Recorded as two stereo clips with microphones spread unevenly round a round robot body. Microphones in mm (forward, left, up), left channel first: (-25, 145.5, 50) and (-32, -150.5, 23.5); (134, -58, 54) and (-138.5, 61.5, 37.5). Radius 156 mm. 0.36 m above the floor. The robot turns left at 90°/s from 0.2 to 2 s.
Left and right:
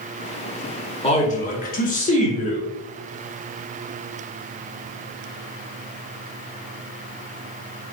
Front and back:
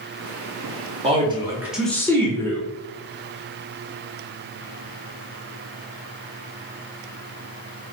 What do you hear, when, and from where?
1.0 s a man speaking: 145° left, 1.3 m; by 2.7 s 55° left, 1.3 m